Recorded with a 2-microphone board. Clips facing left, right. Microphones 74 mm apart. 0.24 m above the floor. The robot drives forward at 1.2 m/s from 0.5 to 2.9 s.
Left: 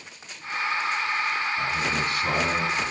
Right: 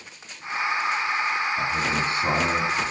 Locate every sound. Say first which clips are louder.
1.6 s a man speaking: right 2 dB; 25° right (ahead or behind), 3.5 m; by 2.8 s 20° right (ahead or behind), 5 m